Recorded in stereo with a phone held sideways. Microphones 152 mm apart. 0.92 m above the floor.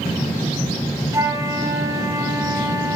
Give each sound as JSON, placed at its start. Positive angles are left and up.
{"t": 1.1, "sound": "a flute", "side_deg": -20, "distance_m": 1.3}